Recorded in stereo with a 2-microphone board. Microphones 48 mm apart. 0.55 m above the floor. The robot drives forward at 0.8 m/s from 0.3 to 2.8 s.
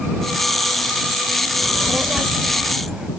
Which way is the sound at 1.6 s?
25° right (ahead or behind).